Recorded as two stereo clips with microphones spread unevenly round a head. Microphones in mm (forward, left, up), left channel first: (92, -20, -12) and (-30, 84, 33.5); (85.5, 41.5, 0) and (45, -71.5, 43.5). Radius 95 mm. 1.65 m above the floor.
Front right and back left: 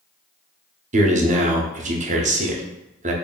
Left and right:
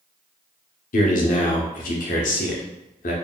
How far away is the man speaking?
About 0.8 m.